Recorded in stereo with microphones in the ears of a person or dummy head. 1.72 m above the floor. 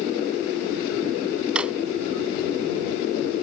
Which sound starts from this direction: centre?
A drawer, at 1.6 s.